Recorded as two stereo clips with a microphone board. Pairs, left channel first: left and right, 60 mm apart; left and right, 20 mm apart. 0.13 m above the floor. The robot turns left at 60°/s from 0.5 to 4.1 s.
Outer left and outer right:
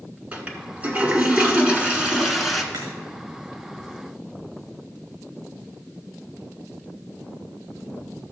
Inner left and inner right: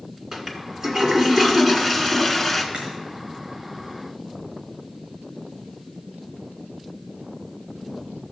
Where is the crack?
80° right, 5 m; by 2.9 s 75° right (ahead or behind), 5 m.